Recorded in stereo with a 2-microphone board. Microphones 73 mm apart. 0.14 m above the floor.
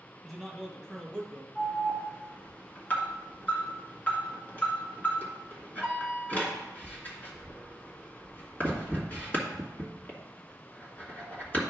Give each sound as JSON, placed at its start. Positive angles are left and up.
{"t": 0.2, "sound": "a man speaking", "side_deg": 5, "distance_m": 2.5}
{"t": 1.6, "sound": "an alarm", "side_deg": 25, "distance_m": 1.8}